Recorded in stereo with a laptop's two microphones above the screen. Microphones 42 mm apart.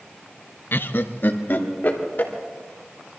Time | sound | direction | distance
0.7 | laughter | 55° left (ahead or behind) | 0.5 m